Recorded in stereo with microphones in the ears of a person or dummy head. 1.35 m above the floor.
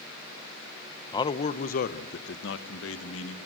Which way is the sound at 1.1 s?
25° left (ahead or behind).